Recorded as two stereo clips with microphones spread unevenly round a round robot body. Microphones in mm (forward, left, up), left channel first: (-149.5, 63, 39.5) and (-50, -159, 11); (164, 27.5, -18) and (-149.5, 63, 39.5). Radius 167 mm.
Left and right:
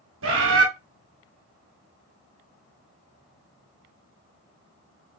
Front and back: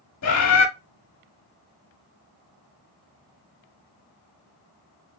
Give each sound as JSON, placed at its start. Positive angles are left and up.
{"t": 0.2, "sound": "a bird", "azimuth_deg": -40, "distance_m": 1.3}